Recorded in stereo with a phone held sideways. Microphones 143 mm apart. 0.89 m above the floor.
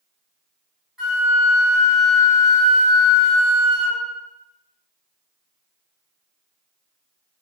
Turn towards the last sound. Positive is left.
turn(degrees=-5)  # may be behind; listen again after turning